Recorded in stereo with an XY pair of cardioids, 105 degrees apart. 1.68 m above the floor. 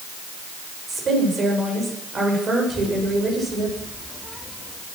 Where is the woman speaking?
40° right, 8.5 m.